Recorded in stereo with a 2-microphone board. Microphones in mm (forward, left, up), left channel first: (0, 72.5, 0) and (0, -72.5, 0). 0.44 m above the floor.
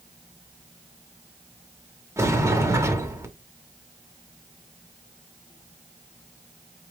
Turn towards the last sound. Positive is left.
turn(degrees=-20)  # may be behind; listen again after turning